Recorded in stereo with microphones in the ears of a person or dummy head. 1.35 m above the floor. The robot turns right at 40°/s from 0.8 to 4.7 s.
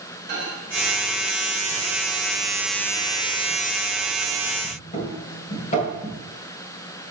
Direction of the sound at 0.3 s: 65° right (ahead or behind).